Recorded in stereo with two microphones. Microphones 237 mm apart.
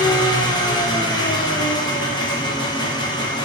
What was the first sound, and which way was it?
An engine running, 15° left (ahead or behind).